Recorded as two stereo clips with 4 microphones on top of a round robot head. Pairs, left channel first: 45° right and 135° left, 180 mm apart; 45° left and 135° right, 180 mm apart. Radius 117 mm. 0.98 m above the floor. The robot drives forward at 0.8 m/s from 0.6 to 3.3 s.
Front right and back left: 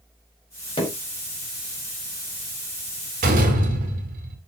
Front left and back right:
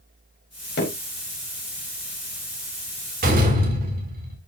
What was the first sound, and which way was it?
Hammering, 15° left.